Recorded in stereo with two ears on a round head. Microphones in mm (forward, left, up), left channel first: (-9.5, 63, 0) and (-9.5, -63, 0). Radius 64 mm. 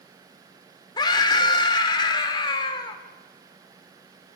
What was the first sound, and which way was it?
A scream, 30° left (ahead or behind).